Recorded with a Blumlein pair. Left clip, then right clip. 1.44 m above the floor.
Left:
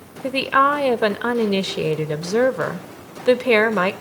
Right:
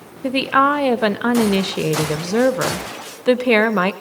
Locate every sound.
0.2 s a woman speaking: 5° right, 0.9 m